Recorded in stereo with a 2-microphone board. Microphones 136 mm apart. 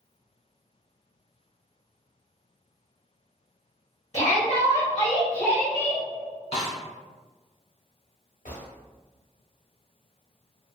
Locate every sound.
4.1 s a shout: 45° left (ahead or behind), 1.6 m; by 6.0 s 25° left (ahead or behind), 1.4 m
6.5 s a snare drum: 50° left (ahead or behind), 0.7 m
8.4 s a gunshot: 75° left (ahead or behind), 0.8 m